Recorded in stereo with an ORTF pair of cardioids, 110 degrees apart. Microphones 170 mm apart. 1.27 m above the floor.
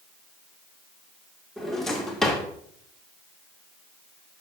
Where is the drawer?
Straight ahead, 1.9 m.